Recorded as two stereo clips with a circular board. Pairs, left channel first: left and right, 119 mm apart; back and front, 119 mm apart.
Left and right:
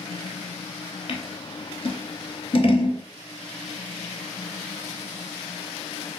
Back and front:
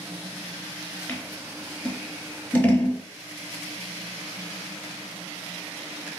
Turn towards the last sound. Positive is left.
turn(degrees=105)